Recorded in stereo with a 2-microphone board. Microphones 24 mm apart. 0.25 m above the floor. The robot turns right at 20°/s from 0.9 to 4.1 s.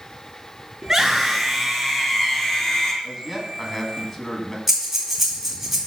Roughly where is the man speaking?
Centre.